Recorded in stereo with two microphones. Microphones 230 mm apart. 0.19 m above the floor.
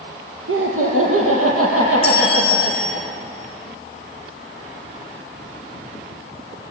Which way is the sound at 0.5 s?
70° right (ahead or behind).